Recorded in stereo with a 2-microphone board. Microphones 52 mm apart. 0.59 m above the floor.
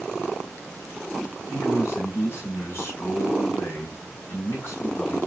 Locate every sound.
1.5 s a man speaking: 50° left (ahead or behind), 3.5 m